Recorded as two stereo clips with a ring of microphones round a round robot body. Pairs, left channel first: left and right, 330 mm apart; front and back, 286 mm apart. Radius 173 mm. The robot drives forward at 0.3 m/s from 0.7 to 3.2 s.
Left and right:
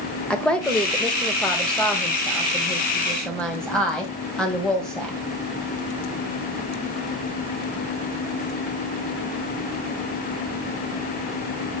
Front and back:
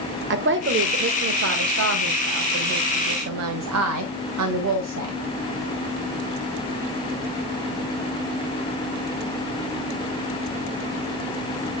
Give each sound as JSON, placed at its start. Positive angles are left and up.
{"t": 0.3, "sound": "a woman speaking", "azimuth_deg": 175, "distance_m": 1.2}